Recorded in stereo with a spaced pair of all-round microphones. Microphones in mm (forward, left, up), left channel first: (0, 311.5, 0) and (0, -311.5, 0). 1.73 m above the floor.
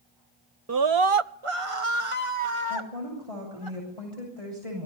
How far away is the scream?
About 0.5 m.